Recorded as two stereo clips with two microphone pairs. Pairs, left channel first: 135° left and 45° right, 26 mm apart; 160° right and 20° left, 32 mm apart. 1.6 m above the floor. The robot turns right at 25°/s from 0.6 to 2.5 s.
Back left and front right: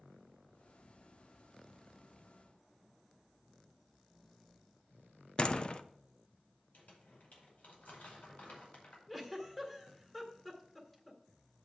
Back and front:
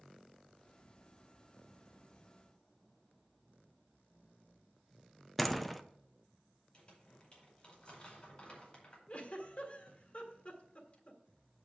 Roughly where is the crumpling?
Behind left.